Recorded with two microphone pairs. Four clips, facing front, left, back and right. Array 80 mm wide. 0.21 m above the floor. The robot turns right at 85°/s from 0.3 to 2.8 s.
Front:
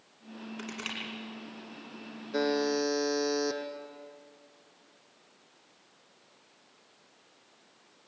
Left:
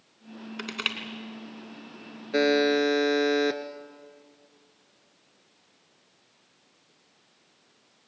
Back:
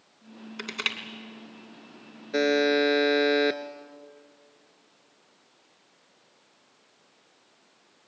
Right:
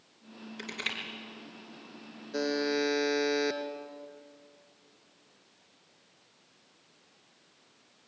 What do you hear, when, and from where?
0.6 s crushing: 115° left, 2.5 m; by 1.0 s 145° left, 2.5 m
2.3 s a buzzer: 135° left, 1.1 m; by 3.6 s 175° left, 1.1 m